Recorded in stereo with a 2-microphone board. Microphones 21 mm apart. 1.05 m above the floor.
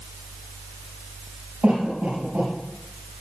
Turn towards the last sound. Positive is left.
turn(degrees=-85)